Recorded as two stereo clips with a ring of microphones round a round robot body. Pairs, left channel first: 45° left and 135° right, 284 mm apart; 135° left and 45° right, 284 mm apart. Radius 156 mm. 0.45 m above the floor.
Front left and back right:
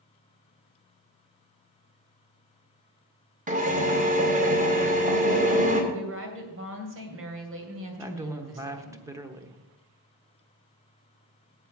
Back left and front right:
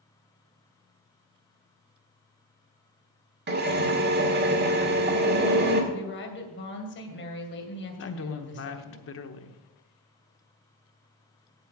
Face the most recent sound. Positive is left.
turn(degrees=150)